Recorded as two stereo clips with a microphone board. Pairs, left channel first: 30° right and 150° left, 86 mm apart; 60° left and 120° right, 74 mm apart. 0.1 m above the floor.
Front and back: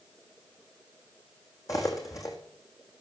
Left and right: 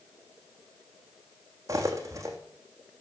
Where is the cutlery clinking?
80° right, 3 m.